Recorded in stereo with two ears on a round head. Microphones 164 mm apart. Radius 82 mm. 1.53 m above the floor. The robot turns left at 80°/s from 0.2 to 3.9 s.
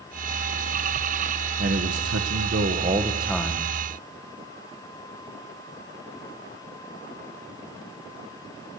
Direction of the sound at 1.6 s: 45° right.